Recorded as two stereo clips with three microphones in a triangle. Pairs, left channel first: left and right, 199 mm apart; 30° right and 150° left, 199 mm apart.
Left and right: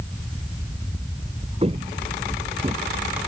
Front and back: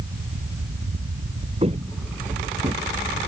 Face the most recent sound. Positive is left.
turn(degrees=-150)